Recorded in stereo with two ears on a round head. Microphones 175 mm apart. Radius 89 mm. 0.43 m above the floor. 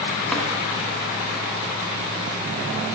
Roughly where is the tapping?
Centre.